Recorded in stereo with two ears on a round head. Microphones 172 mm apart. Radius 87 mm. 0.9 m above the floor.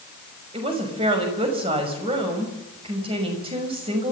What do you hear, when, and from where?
0.5 s a woman speaking: 30° right (ahead or behind), 6 m